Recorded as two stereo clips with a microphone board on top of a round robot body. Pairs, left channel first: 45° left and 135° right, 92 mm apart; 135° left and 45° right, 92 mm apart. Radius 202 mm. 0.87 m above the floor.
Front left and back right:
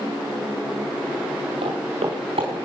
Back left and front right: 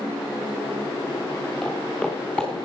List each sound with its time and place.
1.6 s footsteps: 145° right, 4.5 m; by 2.6 s 155° right, 3.5 m